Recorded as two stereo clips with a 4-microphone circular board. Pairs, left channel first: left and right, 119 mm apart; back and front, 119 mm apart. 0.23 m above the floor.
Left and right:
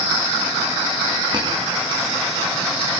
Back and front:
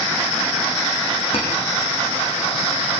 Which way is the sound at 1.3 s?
140° right.